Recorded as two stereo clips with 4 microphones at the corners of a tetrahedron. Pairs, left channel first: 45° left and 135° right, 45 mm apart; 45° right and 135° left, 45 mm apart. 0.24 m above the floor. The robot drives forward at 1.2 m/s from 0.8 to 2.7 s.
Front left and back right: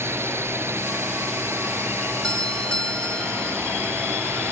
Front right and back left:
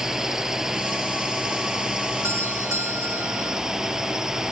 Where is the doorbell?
115° left.